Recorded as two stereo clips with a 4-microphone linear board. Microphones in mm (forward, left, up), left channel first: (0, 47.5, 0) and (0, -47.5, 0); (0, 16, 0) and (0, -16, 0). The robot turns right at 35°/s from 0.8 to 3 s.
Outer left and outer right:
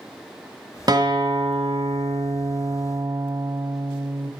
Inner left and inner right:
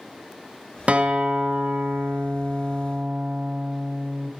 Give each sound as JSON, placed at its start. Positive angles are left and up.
{"t": 0.9, "sound": "a guitar", "azimuth_deg": -135, "distance_m": 1.1}